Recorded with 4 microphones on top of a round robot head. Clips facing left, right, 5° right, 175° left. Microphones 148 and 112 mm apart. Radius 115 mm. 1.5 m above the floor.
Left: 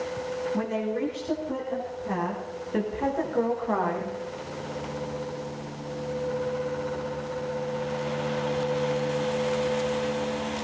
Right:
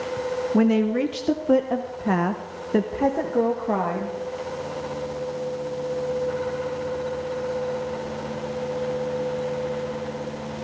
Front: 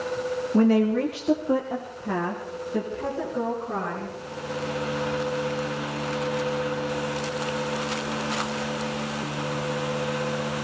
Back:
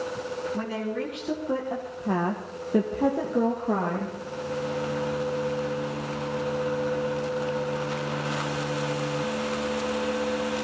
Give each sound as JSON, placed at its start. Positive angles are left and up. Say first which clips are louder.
{"t": 0.5, "sound": "a woman speaking", "louder": "right 11 dB, front 15 dB", "azimuth_deg": -55, "distance_m": 1.7}